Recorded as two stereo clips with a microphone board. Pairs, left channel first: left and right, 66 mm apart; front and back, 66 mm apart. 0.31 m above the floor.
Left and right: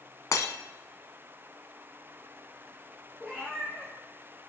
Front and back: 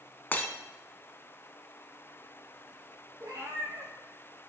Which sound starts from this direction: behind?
A cat meowing, at 3.2 s.